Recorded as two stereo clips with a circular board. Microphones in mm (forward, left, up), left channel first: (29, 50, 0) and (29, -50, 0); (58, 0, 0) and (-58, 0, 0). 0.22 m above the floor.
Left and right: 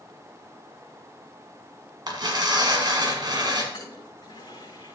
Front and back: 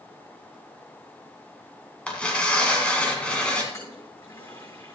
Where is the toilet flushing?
60° left, 5 m.